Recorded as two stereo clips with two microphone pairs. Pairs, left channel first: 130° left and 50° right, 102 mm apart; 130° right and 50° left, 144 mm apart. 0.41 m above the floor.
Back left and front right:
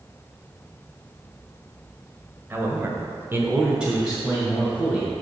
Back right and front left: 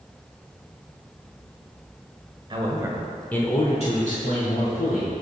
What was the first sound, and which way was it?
A man speaking, 5° left.